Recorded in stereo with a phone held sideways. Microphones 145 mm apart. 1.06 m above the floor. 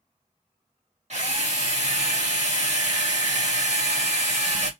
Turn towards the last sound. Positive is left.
turn(degrees=-55)  # may be behind; listen again after turning